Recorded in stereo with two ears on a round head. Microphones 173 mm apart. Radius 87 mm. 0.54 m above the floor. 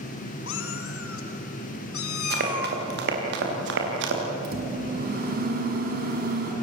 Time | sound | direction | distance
0.5 | a cat meowing | 65° left (ahead or behind) | 1.9 m
2.3 | running footsteps | 50° right (ahead or behind) | 7.5 m
4.4 | a microwave | 50° right (ahead or behind) | 4.5 m